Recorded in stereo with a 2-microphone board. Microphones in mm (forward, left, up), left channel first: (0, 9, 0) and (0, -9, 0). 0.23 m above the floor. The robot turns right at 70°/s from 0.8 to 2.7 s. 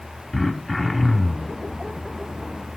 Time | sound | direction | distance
0.3 | throat clearing | 145° left | 0.9 m